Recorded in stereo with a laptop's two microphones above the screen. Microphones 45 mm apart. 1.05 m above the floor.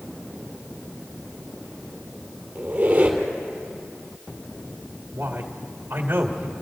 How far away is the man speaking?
About 2.0 m.